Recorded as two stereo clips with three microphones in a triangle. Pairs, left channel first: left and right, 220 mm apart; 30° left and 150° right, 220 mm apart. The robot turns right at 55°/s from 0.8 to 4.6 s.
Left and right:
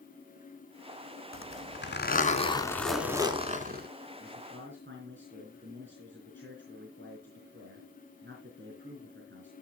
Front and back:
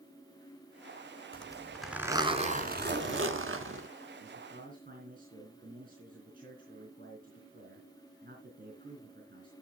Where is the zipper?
95° left, 1.4 m; by 3.9 s 125° right, 1.4 m.